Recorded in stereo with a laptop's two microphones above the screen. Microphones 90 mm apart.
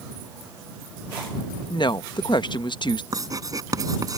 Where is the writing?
40° right (ahead or behind).